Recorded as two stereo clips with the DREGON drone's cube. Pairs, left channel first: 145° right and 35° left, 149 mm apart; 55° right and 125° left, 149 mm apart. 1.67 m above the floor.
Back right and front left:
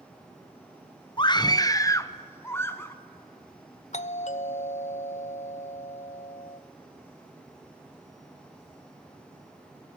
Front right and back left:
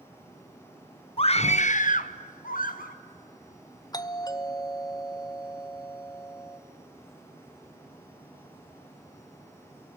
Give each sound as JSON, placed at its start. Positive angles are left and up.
{"t": 1.2, "sound": "a scream", "azimuth_deg": -95, "distance_m": 0.7}
{"t": 3.9, "sound": "a doorbell", "azimuth_deg": -115, "distance_m": 0.7}